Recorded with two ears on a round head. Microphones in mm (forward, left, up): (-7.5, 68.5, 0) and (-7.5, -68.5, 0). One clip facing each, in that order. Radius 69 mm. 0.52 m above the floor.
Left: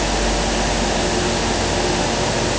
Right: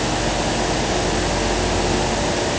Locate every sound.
Only background noise.